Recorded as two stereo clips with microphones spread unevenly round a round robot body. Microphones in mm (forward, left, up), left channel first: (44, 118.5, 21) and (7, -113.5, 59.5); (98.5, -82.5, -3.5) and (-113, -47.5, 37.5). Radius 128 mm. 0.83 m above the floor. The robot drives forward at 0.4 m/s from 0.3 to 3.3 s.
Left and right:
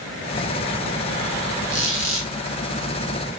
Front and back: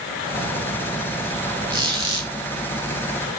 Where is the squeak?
120° right, 3 m; by 2.3 s 125° right, 3 m.